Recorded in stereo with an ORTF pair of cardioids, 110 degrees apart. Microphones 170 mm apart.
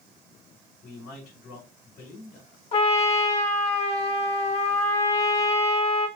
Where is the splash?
No splash in this recording.